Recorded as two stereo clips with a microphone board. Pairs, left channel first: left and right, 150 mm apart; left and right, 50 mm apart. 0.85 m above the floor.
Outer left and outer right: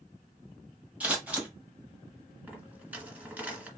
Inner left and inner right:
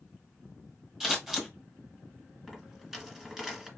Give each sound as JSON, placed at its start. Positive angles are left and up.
{"t": 1.0, "sound": "scissors", "side_deg": -10, "distance_m": 1.6}
{"t": 2.5, "sound": "a dropped coin", "side_deg": -10, "distance_m": 1.8}